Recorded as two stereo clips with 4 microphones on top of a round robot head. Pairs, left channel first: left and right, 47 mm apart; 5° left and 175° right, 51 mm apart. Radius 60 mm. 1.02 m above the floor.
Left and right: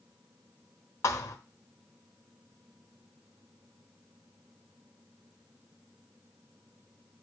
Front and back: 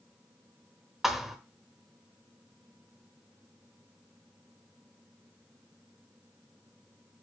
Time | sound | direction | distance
1.0 | a thud | 95° left | 1.0 m